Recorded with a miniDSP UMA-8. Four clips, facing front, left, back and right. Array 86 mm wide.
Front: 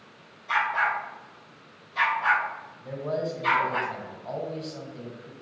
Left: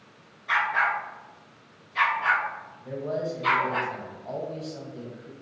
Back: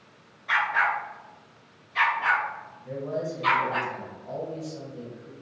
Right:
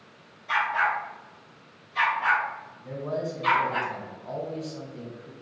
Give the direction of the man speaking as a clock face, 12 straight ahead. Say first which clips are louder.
Left 1 dB, front 1 dB; 12 o'clock.